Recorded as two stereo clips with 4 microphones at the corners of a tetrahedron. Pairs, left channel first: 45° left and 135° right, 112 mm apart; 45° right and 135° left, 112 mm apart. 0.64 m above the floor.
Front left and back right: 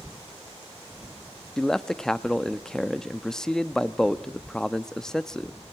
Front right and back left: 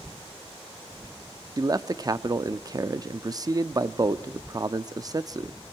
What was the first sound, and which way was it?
A man speaking, 125° left.